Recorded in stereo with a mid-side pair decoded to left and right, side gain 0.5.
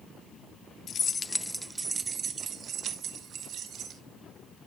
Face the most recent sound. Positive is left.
turn(degrees=-60)